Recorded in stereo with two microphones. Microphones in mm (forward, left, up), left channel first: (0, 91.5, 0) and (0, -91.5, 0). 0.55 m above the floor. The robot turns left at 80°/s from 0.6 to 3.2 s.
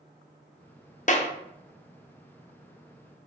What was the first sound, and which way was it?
A clap, 45° left (ahead or behind).